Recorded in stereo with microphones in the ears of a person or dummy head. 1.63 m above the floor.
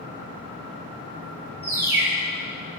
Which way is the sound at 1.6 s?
15° right (ahead or behind).